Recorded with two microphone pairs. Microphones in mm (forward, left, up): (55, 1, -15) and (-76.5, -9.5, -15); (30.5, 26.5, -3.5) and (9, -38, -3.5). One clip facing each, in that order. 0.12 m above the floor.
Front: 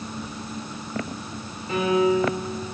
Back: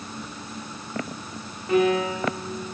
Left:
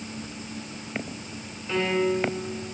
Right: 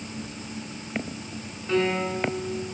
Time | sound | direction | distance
1.7 | a piano | 145° right | 7.5 m